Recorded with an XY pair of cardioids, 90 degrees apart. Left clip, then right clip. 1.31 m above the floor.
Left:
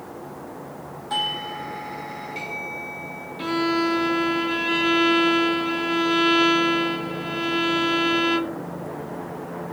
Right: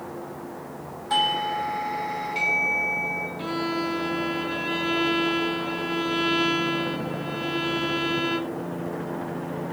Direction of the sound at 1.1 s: 35° right.